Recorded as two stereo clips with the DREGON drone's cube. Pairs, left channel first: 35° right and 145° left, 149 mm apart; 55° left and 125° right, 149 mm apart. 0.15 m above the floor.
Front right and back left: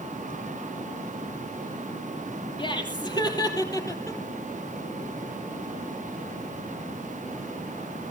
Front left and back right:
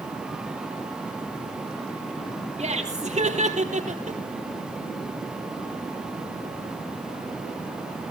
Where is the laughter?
90° right, 3.5 m; by 4.2 s 100° right, 3 m.